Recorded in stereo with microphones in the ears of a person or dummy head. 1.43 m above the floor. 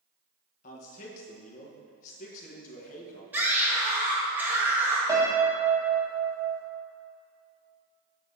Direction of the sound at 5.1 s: 20° right (ahead or behind).